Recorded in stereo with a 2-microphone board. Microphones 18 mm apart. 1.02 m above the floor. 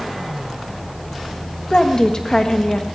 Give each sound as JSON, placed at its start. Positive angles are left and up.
{"t": 1.7, "sound": "a woman speaking", "side_deg": 45, "distance_m": 1.5}